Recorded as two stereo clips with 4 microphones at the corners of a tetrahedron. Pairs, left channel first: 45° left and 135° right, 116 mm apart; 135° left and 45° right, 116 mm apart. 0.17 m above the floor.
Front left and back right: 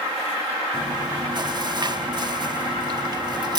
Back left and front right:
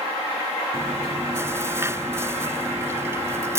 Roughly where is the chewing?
Right.